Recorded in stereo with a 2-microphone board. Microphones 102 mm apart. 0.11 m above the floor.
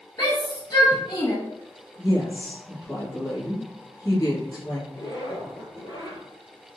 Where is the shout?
35° left (ahead or behind), 1.6 m.